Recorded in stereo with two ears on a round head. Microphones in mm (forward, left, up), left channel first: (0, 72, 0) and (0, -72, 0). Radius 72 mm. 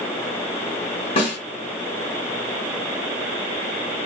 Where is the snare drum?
30° left (ahead or behind), 1.0 m.